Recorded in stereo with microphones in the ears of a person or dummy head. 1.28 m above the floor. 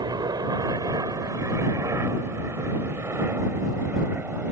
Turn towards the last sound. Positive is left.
turn(degrees=-10)  # may be behind; listen again after turning